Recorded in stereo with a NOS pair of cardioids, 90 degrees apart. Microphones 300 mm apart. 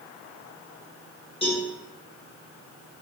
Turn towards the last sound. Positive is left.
turn(degrees=20)